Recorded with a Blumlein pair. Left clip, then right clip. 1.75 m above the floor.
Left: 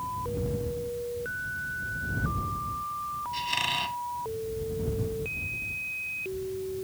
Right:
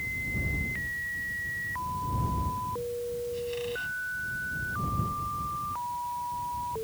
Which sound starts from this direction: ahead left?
A squeak, at 3.3 s.